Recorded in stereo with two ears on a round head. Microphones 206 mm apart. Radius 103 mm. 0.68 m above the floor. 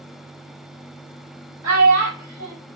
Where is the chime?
I don't hear a chime.